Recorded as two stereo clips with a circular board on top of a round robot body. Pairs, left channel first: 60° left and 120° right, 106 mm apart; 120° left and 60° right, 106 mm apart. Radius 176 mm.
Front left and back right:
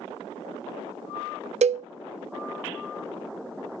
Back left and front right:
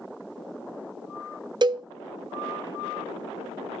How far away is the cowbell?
About 0.5 m.